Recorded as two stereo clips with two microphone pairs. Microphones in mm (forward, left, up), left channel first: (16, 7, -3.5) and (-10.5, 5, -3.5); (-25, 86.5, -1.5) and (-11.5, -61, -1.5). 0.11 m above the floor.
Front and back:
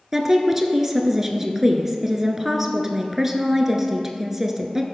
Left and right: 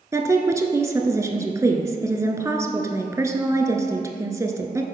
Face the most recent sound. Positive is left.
turn(degrees=-120)